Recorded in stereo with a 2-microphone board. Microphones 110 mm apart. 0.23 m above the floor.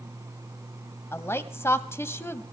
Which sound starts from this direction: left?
A woman speaking, at 1.1 s.